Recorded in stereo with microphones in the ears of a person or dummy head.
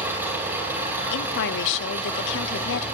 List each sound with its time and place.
0.0 s an engine running: 10° right (ahead or behind), 7 m
1.1 s a woman speaking: 60° left (ahead or behind), 0.8 m